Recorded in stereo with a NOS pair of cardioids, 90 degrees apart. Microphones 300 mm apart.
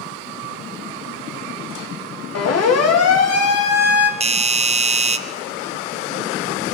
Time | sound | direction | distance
2.4 | a siren | 55° left | 3.5 m
4.2 | a doorbell | 20° right | 1.3 m